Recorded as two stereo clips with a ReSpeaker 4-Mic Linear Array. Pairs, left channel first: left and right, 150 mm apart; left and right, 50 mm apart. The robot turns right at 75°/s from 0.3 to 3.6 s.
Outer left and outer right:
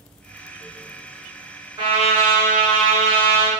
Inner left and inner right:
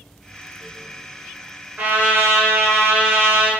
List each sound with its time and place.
1.8 s a trumpet: 145° right, 1.2 m; by 3.5 s 15° right, 1.2 m